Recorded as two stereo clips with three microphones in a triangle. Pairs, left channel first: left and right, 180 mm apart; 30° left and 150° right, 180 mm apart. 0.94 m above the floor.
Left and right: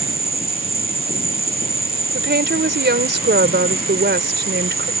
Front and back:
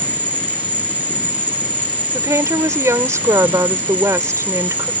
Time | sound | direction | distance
0.0 | an insect | 70° right | ?
2.1 | a woman speaking | 75° right | ?